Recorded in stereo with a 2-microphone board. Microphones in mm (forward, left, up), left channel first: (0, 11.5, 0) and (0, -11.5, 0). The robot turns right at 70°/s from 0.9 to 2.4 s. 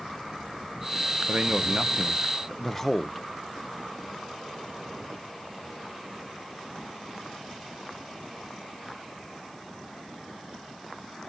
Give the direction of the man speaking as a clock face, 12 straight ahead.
2 o'clock.